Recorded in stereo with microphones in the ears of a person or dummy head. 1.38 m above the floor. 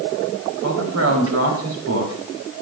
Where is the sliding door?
No sliding door in this recording.